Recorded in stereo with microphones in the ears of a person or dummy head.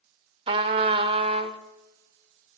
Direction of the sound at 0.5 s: 30° right (ahead or behind).